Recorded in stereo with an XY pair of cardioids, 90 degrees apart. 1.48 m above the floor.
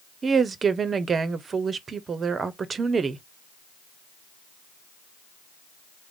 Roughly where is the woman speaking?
Ahead right.